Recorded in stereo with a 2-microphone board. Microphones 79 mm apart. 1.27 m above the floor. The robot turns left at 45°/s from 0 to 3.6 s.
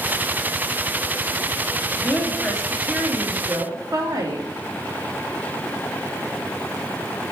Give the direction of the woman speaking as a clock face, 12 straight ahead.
11 o'clock.